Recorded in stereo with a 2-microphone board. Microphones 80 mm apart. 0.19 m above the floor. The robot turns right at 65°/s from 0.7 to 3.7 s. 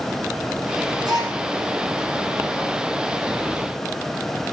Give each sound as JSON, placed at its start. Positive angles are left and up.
{"t": 1.0, "sound": "a gasp", "side_deg": -65, "distance_m": 8.0}